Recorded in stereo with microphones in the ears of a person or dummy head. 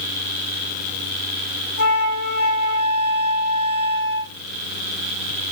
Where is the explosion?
I don't hear an explosion.